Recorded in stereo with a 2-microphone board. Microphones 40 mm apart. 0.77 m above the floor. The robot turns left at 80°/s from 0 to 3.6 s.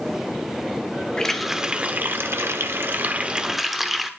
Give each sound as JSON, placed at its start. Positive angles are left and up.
{"t": 1.2, "sound": "a running tap", "azimuth_deg": 20, "distance_m": 1.2}